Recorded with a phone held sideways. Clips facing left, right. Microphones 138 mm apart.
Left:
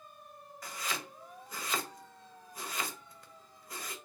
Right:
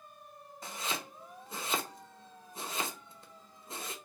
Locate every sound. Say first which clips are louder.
0.6 s chopping: right 1 dB; 25° right (ahead or behind), 0.6 m